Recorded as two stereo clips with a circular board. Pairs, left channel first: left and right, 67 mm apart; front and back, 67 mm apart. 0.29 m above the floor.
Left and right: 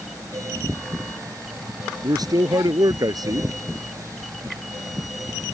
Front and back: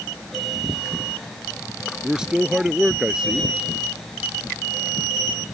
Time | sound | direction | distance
2.0 | a man speaking | 100° right | ?